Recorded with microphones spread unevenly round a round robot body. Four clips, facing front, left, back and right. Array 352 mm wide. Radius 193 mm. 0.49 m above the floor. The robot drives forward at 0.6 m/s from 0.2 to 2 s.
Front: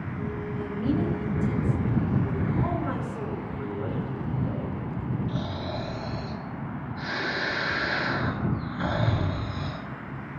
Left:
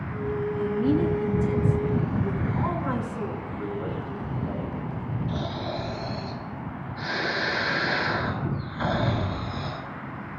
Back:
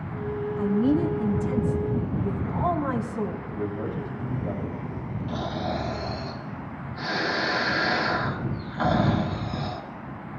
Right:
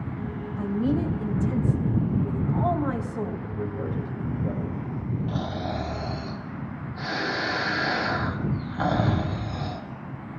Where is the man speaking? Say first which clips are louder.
Even, back 2 dB; 135° right, 5 m.